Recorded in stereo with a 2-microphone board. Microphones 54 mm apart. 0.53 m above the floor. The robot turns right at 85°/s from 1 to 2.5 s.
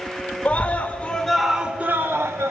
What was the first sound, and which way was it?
A scream, 145° left.